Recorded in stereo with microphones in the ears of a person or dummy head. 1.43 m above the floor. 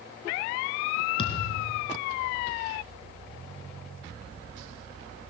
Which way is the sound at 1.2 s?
35° left (ahead or behind).